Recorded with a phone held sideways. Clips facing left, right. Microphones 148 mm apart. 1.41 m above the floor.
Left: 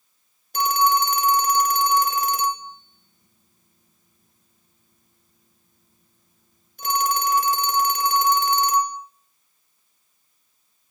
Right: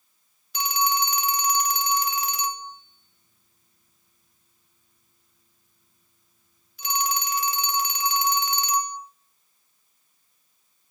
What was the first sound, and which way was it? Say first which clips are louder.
A phone ringing: left 6 dB; 50° left (ahead or behind).